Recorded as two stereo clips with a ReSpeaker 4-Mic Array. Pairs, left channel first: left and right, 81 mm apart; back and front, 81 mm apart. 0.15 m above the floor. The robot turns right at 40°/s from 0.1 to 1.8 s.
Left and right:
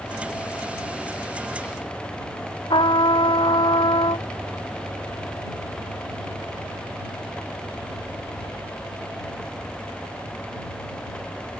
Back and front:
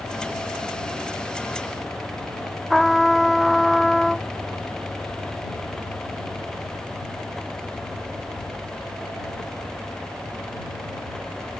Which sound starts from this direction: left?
A trumpet, at 2.7 s.